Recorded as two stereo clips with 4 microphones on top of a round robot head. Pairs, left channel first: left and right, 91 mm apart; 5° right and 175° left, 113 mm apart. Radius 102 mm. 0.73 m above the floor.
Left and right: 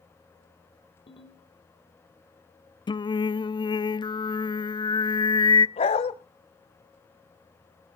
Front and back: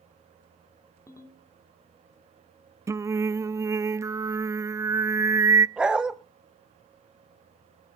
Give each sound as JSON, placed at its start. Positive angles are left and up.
{"t": 1.1, "sound": "a ringtone", "azimuth_deg": 60, "distance_m": 2.0}
{"t": 2.9, "sound": "singing", "azimuth_deg": 115, "distance_m": 0.6}
{"t": 5.8, "sound": "a dog barking", "azimuth_deg": 95, "distance_m": 1.2}